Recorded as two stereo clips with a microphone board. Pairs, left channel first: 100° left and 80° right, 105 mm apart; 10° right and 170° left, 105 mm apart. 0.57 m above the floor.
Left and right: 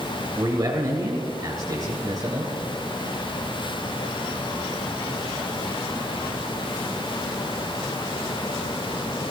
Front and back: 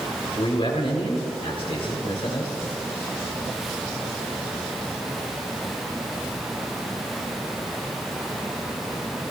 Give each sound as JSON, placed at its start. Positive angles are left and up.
{"t": 0.3, "sound": "a man speaking", "azimuth_deg": -35, "distance_m": 2.5}